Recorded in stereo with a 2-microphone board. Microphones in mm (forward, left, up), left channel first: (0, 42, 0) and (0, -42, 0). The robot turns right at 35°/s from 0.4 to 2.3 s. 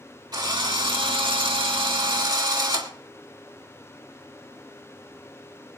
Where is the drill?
125° right, 2 m; by 2.9 s 55° right, 2 m.